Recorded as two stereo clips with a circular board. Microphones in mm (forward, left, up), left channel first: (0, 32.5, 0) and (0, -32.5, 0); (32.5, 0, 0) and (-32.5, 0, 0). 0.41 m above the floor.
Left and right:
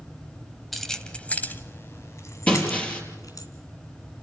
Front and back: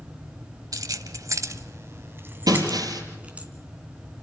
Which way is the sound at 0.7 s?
Straight behind.